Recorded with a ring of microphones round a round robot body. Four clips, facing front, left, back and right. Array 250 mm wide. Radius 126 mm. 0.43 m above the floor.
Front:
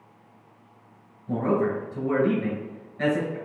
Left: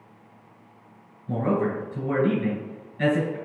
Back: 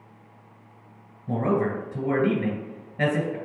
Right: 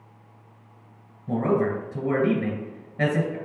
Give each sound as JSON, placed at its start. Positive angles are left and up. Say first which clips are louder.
{"t": 1.3, "sound": "a man speaking", "louder": "right 2 dB, even", "azimuth_deg": -140, "distance_m": 1.9}